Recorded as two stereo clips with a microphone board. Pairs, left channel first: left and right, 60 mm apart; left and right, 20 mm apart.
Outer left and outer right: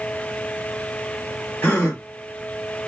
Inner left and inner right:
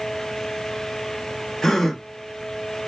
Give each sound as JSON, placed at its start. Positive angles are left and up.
{"t": 1.6, "sound": "a gasp", "side_deg": 25, "distance_m": 1.2}